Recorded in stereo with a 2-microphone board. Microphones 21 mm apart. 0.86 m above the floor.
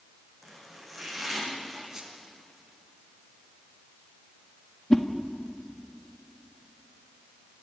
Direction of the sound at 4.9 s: 30° left (ahead or behind).